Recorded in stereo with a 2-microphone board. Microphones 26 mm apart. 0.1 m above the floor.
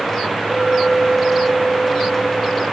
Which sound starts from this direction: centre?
A clink, at 0.5 s.